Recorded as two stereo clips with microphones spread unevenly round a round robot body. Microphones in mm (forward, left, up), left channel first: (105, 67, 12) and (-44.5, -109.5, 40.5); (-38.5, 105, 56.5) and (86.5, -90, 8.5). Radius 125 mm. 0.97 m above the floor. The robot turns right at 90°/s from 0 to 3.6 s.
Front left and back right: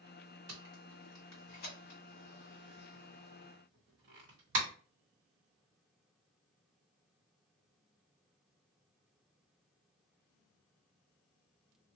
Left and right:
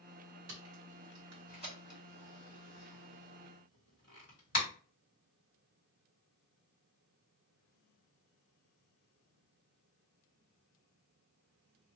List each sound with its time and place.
0.5 s tape being pulled: 100° right, 1.8 m; by 4.7 s straight behind, 1.8 m